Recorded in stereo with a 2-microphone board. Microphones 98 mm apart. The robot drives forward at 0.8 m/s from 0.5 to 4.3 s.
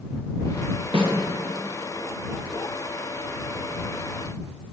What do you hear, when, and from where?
0.9 s a snare drum: 60° right (ahead or behind), 3.5 m